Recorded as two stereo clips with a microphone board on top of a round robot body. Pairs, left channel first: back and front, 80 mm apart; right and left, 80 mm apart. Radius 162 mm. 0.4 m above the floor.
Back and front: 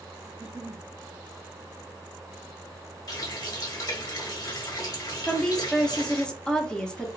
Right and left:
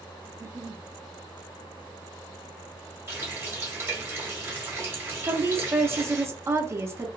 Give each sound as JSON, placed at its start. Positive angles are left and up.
{"t": 0.3, "sound": "a giggle", "azimuth_deg": 65, "distance_m": 0.9}
{"t": 3.1, "sound": "a running tap", "azimuth_deg": 145, "distance_m": 1.3}
{"t": 5.3, "sound": "a woman speaking", "azimuth_deg": 110, "distance_m": 1.0}